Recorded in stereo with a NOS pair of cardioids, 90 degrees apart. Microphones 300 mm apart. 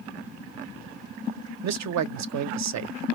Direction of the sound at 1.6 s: 60° right.